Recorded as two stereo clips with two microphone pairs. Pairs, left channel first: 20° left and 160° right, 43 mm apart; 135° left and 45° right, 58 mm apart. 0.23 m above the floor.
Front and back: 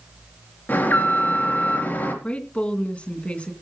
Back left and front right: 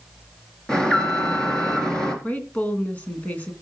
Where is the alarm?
60° left, 3.5 m.